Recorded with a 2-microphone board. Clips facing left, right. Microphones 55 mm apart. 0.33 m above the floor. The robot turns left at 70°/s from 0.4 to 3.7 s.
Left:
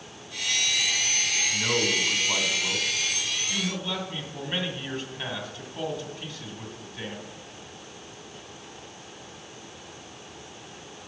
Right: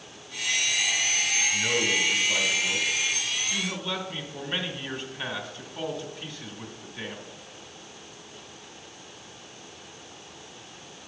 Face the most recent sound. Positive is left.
turn(degrees=0)